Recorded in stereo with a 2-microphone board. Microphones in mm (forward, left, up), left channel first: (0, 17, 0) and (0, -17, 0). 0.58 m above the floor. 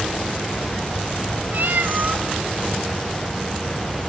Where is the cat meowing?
65° right (ahead or behind), 0.8 m.